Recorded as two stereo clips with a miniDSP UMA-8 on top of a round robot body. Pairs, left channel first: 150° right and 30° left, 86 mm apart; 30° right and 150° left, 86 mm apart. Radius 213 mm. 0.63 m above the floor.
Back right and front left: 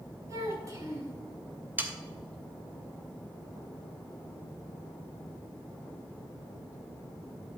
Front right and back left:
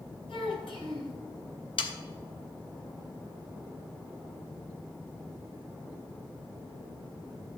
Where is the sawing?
40° right, 1.3 m.